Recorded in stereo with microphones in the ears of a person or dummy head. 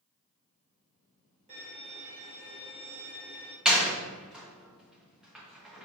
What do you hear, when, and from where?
1.5 s a violin: 35° right (ahead or behind), 2.5 m
3.6 s a door slam: 5° right (ahead or behind), 1.1 m